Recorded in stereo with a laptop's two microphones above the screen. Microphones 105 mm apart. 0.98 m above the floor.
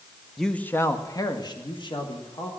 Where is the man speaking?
Centre (ahead or behind), 0.9 m; by 2.5 s 55° left (ahead or behind), 2.5 m.